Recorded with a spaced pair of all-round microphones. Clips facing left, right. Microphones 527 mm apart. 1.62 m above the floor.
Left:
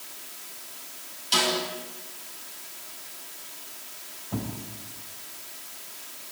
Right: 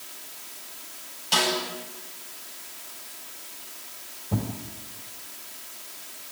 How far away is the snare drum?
About 9 m.